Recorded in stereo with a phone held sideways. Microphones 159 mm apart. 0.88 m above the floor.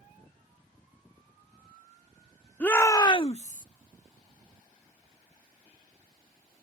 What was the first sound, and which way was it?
A shout, 10° left (ahead or behind).